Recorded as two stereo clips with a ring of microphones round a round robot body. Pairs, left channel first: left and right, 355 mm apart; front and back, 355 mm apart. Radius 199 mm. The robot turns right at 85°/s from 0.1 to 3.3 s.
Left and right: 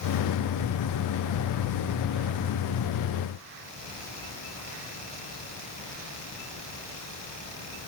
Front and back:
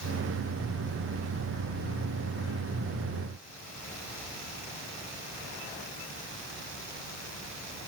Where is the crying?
No crying in this recording.